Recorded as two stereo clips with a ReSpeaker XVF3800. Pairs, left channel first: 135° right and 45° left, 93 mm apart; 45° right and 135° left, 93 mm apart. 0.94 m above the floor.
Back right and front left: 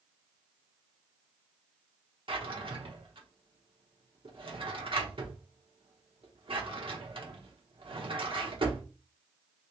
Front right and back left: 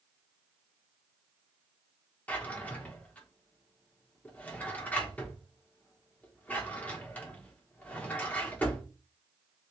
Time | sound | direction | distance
2.3 | a drawer | 30° left | 1.0 m